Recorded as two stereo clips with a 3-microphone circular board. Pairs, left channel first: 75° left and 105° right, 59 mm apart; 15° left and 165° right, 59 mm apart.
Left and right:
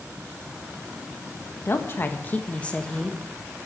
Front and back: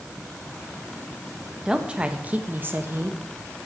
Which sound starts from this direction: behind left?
A woman speaking, at 1.6 s.